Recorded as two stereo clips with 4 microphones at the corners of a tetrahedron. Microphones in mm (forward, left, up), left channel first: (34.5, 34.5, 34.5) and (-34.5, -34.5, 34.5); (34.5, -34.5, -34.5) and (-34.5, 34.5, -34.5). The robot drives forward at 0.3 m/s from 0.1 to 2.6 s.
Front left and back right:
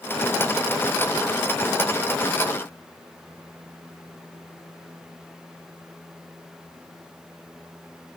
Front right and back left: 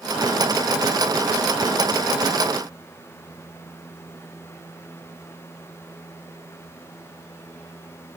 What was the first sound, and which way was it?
Only background noise.